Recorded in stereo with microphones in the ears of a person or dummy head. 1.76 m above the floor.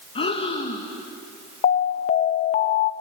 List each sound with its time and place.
0.1 s breathing: 35° left (ahead or behind), 1.9 m
1.6 s an alarm: 40° left (ahead or behind), 0.9 m